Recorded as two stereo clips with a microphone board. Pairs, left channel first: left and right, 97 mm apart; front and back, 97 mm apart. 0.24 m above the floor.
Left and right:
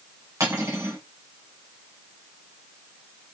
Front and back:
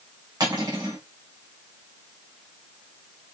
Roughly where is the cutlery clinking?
Behind right.